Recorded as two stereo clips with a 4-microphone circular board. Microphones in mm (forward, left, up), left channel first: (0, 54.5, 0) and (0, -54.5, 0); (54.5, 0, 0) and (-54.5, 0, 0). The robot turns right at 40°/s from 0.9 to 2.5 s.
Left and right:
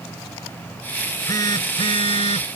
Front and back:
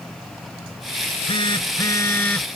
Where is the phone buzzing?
20° left; by 2.5 s 80° left.